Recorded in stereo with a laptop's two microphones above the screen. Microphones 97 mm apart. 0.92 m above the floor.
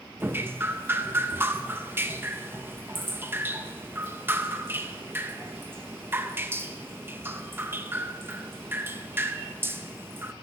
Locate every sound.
0.2 s dripping: 25° right (ahead or behind), 0.7 m